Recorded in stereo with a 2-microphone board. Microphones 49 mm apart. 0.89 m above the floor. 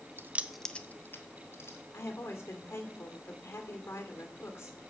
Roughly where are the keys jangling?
Right.